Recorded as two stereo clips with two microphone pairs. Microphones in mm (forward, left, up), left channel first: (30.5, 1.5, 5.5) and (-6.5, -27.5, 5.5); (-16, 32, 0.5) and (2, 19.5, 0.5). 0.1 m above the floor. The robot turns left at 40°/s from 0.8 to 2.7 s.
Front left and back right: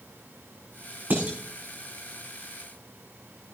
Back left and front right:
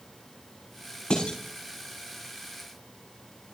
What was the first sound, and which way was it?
Dishes clattering, 165° left.